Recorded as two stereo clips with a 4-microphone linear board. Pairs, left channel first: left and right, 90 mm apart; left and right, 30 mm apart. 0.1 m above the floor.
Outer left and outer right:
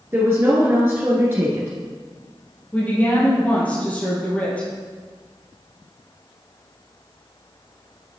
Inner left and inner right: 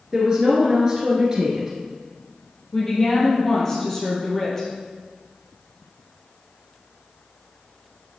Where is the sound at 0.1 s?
25° right (ahead or behind), 1.4 m.